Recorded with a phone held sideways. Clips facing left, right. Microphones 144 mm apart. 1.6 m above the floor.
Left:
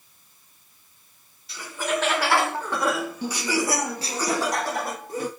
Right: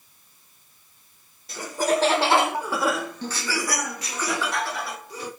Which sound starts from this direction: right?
Laughter, at 1.5 s.